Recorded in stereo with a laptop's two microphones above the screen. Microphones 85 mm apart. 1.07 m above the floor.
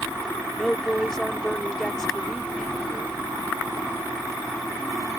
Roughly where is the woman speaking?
Centre.